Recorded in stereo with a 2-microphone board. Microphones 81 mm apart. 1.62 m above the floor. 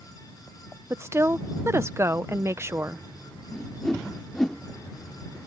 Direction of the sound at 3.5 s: 5° left (ahead or behind).